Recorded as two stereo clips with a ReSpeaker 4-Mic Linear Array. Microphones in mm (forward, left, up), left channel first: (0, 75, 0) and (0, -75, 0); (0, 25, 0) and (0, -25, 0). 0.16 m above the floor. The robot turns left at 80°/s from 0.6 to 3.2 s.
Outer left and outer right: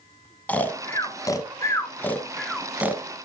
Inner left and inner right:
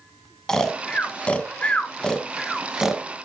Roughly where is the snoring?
Centre.